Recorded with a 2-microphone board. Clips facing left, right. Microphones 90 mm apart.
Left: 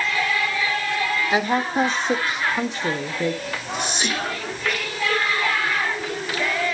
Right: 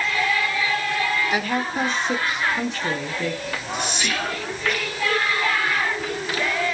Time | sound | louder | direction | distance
1.3 | a woman speaking | left 3 dB | 25° left (ahead or behind) | 0.9 m
3.5 | whispering | even | 35° left (ahead or behind) | 1.3 m